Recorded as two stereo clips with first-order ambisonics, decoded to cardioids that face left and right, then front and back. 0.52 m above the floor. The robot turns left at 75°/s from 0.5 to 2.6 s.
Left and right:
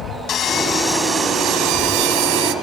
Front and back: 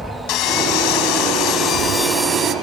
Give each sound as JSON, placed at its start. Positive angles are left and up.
{"t": 0.3, "sound": "sawing", "azimuth_deg": 35, "distance_m": 0.8}